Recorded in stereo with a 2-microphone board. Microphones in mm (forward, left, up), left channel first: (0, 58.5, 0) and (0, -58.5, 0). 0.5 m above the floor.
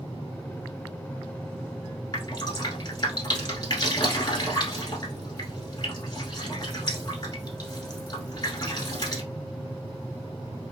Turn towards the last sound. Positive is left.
turn(degrees=40)  # may be behind; listen again after turning